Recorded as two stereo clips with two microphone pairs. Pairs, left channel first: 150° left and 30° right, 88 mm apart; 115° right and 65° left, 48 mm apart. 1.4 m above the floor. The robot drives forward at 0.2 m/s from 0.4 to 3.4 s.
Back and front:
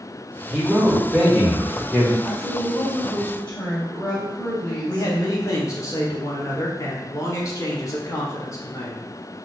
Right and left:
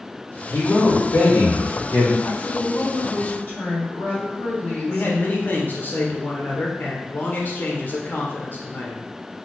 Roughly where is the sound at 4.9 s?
Behind.